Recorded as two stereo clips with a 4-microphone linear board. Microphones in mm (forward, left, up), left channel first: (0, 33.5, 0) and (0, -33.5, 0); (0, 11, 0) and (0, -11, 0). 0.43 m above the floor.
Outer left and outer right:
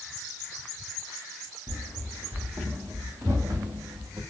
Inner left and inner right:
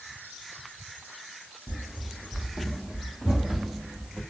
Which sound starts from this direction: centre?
Running footsteps, at 1.7 s.